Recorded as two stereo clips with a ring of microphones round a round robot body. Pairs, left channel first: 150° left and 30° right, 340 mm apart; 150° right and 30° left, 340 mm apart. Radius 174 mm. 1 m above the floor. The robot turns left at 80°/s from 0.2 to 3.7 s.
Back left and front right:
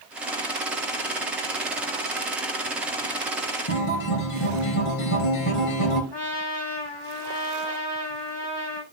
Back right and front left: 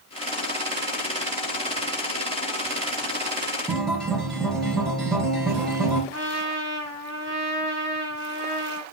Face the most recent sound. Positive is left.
turn(degrees=155)